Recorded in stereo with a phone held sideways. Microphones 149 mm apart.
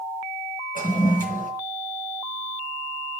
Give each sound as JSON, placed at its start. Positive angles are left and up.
{"t": 0.8, "sound": "a toilet flushing", "side_deg": 65, "distance_m": 3.0}